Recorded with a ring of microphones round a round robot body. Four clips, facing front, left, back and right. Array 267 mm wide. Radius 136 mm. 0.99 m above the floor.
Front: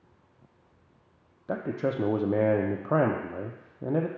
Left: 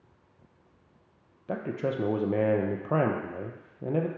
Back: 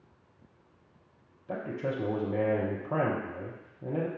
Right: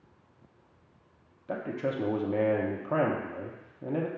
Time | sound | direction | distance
1.5 | a man speaking | 30° left | 0.6 m